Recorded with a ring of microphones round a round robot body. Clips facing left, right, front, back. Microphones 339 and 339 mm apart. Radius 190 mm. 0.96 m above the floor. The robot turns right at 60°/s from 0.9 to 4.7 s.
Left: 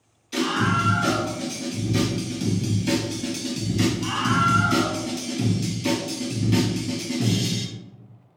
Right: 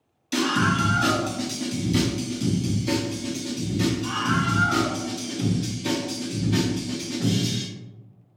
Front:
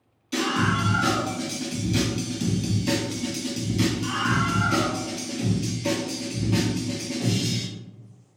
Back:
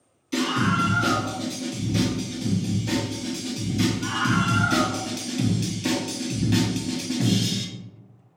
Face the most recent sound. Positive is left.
turn(degrees=150)